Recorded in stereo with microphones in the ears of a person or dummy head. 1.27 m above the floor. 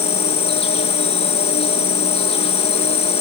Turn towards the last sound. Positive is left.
turn(degrees=30)  # may be behind; listen again after turning